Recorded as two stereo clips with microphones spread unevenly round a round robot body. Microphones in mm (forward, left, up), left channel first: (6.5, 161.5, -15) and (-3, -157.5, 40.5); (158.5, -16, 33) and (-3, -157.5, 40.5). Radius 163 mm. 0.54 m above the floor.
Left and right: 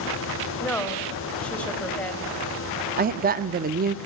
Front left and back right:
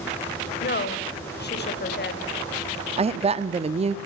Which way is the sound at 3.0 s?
140° right.